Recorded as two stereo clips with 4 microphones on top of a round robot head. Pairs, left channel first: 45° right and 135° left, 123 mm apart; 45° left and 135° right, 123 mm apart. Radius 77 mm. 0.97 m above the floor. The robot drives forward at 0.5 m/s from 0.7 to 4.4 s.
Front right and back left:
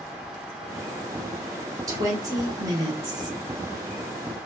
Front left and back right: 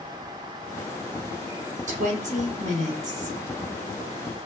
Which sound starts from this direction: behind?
A woman speaking, at 1.9 s.